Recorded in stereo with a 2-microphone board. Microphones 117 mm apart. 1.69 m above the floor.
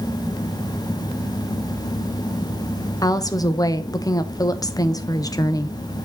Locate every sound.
3.0 s a woman speaking: 30° left (ahead or behind), 0.9 m